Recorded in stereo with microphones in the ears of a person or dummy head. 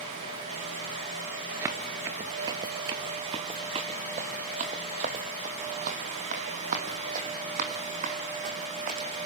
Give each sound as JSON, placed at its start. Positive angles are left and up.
{"t": 1.6, "sound": "running footsteps", "side_deg": -10, "distance_m": 1.1}